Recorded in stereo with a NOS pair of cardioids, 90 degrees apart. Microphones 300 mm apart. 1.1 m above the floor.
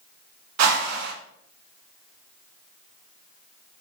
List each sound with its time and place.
0.6 s a whoosh: 65° right, 0.6 m